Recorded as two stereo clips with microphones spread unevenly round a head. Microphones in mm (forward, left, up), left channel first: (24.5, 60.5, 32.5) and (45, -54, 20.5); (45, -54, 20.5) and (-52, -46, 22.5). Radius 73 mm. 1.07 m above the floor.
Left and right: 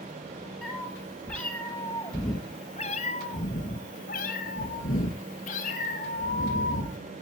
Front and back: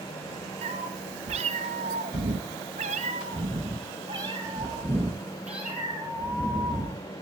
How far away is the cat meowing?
About 3 m.